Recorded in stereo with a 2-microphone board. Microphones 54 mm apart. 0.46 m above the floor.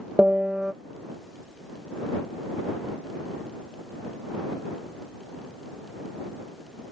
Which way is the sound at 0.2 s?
15° right (ahead or behind).